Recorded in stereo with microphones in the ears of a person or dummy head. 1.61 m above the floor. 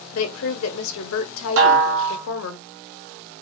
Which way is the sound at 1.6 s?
65° right (ahead or behind).